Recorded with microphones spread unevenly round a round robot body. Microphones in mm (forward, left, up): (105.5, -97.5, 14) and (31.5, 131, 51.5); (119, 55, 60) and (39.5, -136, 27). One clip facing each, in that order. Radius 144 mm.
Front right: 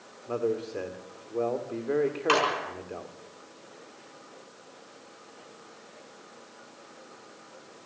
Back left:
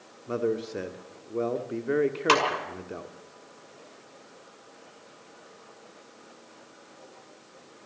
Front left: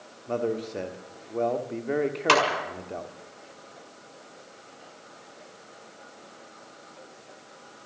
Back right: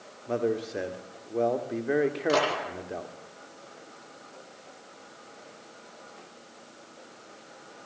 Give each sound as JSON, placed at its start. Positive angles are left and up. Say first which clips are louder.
{"t": 0.3, "sound": "a man speaking", "louder": "back left 1 dB, even", "azimuth_deg": 180, "distance_m": 1.3}
{"t": 2.3, "sound": "a clap", "louder": "back left 1 dB, front left 1 dB", "azimuth_deg": 75, "distance_m": 5.5}